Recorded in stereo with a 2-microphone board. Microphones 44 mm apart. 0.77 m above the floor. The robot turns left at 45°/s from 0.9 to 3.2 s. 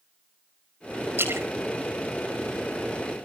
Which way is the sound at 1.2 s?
65° right (ahead or behind).